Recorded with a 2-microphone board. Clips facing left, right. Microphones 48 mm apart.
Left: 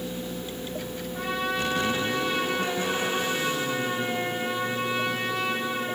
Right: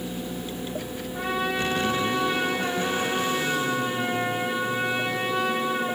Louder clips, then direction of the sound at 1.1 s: Right 2 dB; 5° right (ahead or behind).